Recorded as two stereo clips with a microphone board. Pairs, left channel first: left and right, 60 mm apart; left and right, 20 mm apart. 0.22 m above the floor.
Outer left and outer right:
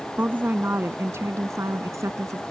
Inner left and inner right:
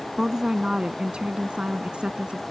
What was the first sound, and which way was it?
A woman speaking, 30° right (ahead or behind).